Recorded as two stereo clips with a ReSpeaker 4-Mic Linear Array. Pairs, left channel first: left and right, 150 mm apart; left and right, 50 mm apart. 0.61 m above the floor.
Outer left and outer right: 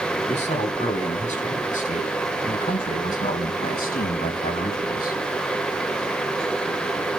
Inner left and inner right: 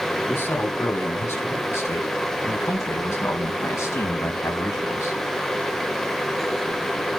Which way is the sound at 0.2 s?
50° left (ahead or behind).